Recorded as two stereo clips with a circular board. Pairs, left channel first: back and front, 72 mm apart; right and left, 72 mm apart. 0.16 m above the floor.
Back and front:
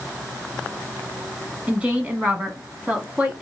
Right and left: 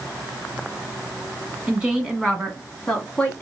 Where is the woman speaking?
40° left, 1.6 m; by 3.4 s 50° right, 1.6 m.